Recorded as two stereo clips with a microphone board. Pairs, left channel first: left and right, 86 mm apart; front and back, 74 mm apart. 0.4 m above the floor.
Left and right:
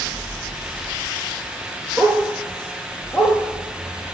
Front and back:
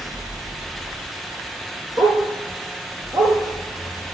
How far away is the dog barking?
About 3.5 m.